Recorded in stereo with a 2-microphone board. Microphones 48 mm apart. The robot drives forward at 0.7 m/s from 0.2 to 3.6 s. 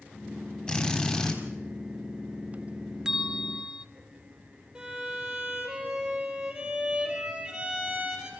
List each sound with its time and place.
0.7 s a drill: 20° left (ahead or behind), 4 m
3.0 s a bell: 15° right (ahead or behind), 0.8 m; by 3.9 s 20° right (ahead or behind), 0.6 m
4.8 s a violin: 20° right (ahead or behind), 3.5 m